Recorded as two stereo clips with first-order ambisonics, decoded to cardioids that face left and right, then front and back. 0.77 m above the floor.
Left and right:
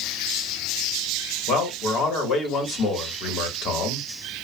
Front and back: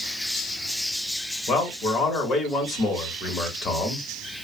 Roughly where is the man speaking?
Ahead left.